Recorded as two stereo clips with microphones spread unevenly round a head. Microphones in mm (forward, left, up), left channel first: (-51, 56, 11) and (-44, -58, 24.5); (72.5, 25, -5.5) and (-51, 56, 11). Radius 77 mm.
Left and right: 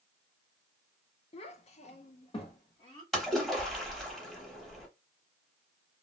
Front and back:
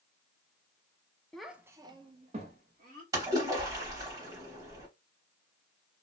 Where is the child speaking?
65° left, 0.6 m; by 3.0 s 140° left, 1.1 m.